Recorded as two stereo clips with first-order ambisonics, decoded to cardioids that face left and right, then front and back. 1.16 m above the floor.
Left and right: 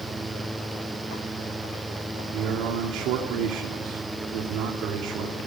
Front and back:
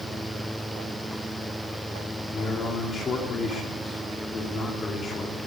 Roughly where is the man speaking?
Ahead right.